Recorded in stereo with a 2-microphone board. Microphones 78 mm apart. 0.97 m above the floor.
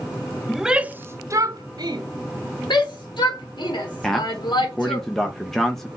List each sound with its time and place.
0.5 s a shout: centre (ahead or behind), 0.6 m; by 2.0 s 65° right (ahead or behind), 0.9 m
2.7 s a shout: 70° left (ahead or behind), 1.9 m
4.0 s a man speaking: 5° left (ahead or behind), 0.8 m